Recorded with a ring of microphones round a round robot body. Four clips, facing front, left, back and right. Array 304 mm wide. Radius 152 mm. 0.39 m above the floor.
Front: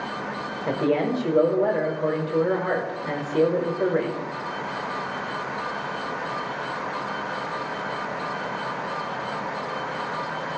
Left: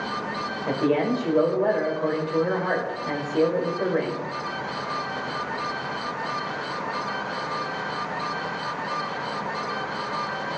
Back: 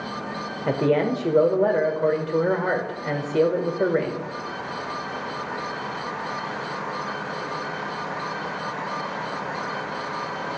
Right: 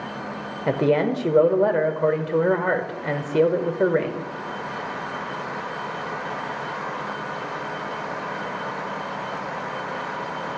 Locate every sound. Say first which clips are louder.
0.7 s a man speaking: right 3 dB, back 2 dB; 110° right, 1.2 m